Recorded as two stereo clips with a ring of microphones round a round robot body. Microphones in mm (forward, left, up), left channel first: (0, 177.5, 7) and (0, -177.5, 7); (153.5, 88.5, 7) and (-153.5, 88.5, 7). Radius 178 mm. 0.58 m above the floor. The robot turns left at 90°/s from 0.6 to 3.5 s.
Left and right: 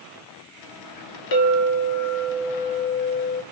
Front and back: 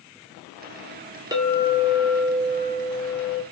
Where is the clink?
105° left, 1.0 m; by 3.4 s 85° right, 1.0 m.